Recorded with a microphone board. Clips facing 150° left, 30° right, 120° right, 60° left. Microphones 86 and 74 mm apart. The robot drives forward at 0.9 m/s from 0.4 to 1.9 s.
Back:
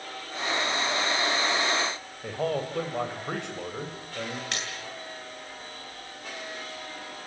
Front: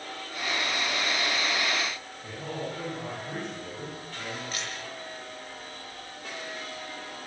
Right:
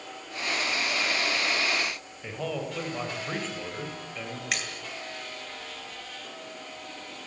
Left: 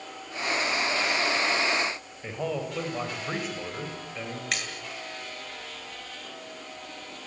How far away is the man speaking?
About 7 m.